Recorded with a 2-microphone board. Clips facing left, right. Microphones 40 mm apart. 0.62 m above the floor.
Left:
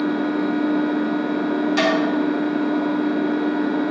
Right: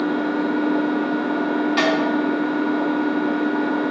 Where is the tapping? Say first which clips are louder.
Even; 10° right (ahead or behind), 2 m.